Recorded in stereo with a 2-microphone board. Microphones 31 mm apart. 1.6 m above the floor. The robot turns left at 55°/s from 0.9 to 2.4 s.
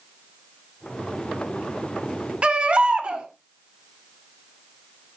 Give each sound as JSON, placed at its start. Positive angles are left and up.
{"t": 2.4, "sound": "a baby crying", "side_deg": -35, "distance_m": 1.5}